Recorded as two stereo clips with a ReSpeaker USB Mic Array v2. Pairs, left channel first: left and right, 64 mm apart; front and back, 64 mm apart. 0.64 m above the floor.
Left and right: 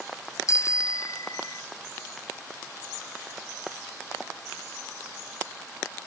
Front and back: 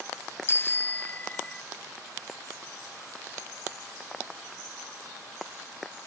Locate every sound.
0.5 s a bicycle bell: 55° left; by 1.6 s 75° left